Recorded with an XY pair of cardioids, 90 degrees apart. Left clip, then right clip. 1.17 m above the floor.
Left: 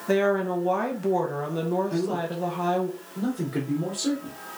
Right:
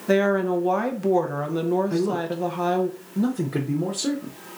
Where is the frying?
No frying in this recording.